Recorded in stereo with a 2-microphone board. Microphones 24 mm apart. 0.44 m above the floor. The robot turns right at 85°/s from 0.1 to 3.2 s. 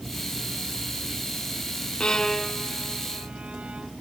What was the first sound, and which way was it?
A violin, 45° left (ahead or behind).